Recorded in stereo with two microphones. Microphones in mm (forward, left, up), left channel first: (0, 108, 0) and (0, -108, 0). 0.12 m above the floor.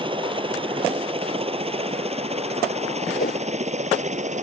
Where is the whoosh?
40° left (ahead or behind).